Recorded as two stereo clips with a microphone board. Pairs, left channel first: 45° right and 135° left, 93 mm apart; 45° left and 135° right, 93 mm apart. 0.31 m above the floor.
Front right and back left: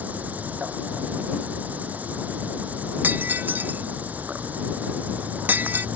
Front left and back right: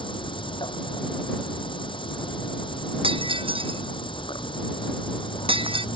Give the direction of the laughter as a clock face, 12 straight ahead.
No laughter in this recording.